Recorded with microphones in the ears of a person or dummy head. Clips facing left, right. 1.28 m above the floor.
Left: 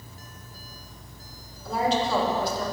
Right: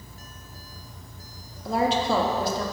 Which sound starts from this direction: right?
A woman speaking, at 1.6 s.